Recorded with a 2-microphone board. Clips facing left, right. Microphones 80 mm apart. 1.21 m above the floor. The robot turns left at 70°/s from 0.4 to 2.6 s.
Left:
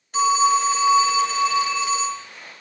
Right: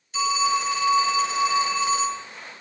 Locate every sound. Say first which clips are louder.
0.1 s a phone ringing: left 5 dB; 60° left, 2.5 m; by 2.2 s 70° right, 2.5 m